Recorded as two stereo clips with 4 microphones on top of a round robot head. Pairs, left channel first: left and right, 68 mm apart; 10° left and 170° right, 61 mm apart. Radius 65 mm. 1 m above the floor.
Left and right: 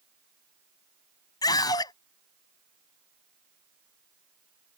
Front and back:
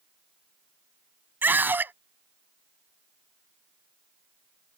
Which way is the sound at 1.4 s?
130° left.